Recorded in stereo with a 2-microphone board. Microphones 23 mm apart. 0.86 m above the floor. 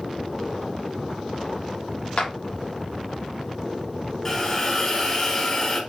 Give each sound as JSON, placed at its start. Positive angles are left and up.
{"t": 2.2, "sound": "a clap", "side_deg": 55, "distance_m": 1.0}
{"t": 4.2, "sound": "a hiss", "side_deg": 15, "distance_m": 1.1}